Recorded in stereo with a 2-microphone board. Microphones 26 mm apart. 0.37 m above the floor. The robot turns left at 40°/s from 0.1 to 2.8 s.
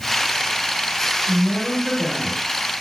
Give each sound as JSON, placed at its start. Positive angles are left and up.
{"t": 1.2, "sound": "a woman speaking", "azimuth_deg": -80, "distance_m": 1.5}